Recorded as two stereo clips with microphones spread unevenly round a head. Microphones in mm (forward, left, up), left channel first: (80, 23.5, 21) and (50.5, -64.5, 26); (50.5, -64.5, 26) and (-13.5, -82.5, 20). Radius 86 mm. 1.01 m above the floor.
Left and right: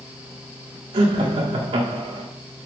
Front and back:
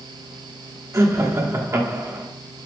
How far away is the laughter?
About 1.4 m.